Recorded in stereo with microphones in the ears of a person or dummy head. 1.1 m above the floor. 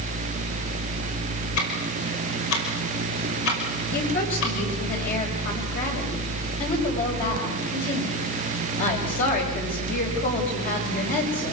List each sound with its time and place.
1.6 s ticking: 75° left (ahead or behind), 5 m
3.9 s a woman speaking: 45° left (ahead or behind), 6.5 m